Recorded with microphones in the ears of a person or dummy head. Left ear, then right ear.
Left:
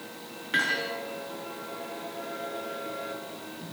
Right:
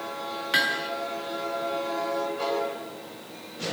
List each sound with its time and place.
0.5 s hammering: 35° right (ahead or behind), 5.5 m